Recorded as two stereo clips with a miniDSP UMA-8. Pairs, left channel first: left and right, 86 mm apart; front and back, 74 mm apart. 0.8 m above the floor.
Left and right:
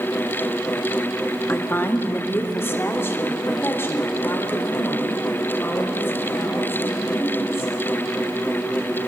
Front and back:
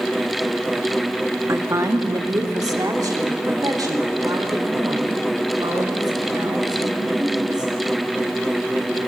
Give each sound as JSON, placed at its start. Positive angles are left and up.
{"t": 1.5, "sound": "a woman speaking", "azimuth_deg": 150, "distance_m": 1.5}